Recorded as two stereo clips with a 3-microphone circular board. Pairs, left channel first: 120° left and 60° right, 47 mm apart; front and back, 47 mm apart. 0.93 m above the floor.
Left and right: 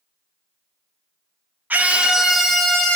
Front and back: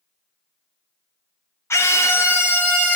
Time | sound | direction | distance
1.7 | a scream | 10° right | 0.7 m